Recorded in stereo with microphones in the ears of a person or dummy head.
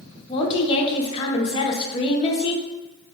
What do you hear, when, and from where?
0.3 s a woman speaking: 30° left (ahead or behind), 0.7 m